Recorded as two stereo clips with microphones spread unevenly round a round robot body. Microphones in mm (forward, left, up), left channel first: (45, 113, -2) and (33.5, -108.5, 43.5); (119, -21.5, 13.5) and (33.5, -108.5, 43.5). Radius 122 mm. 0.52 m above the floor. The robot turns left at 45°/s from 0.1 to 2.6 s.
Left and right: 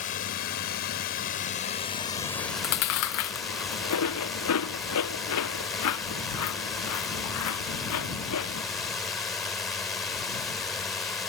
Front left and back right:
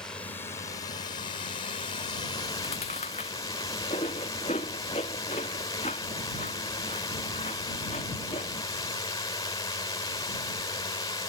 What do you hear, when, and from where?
0.0 s a drone: 120° left; by 11.3 s 5° left
2.4 s chewing: 115° left; by 8.6 s 105° left